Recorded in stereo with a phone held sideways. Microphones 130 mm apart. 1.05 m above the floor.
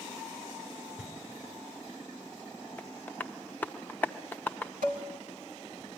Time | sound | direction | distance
1.0 | knocking | 5° right (ahead or behind) | 3 m
2.8 | tapping | 15° left (ahead or behind) | 0.6 m
4.8 | dishes clattering | 80° right | 2.5 m